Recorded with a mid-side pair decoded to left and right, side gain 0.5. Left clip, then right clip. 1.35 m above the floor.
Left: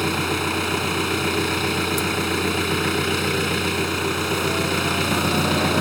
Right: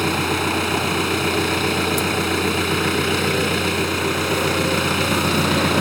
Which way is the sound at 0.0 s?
10° right.